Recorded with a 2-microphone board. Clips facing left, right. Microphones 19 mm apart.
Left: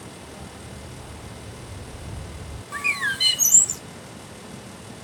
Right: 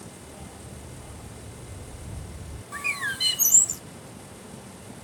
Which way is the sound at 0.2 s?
10° left (ahead or behind).